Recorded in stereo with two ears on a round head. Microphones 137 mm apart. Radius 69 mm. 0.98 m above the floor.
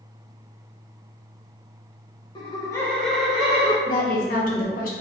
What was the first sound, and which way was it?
Laughter, 30° left (ahead or behind).